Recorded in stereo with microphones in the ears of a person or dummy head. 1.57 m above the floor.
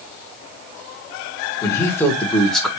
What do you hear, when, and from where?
1.6 s a man speaking: 15° left (ahead or behind), 1.3 m; by 2.7 s 5° right (ahead or behind), 0.8 m